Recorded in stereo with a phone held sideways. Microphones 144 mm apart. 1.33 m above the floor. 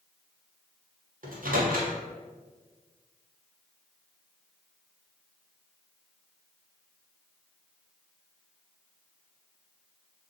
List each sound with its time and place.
1.2 s a microwave: 75° right (ahead or behind), 0.7 m